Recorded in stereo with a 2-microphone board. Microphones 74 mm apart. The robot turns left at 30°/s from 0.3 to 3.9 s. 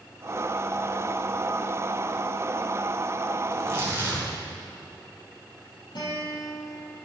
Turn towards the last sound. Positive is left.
turn(degrees=70)  # may be behind; listen again after turning